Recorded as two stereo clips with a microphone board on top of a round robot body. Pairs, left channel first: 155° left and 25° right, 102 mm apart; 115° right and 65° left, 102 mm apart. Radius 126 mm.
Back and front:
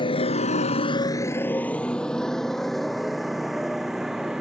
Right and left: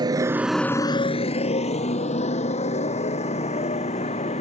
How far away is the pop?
I don't hear a pop.